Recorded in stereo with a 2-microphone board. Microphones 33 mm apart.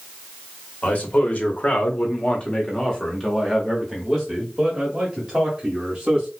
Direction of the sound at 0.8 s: 50° left (ahead or behind).